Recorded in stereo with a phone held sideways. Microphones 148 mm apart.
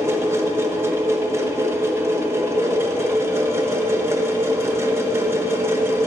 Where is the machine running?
20° right (ahead or behind), 0.9 m.